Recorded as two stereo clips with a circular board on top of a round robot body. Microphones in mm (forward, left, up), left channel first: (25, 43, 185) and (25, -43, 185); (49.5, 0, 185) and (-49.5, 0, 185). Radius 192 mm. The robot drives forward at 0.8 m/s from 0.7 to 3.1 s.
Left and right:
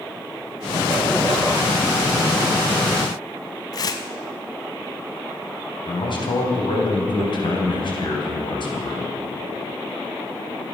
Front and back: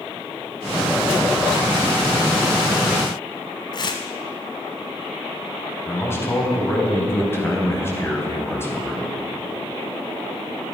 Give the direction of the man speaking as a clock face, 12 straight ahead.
10 o'clock.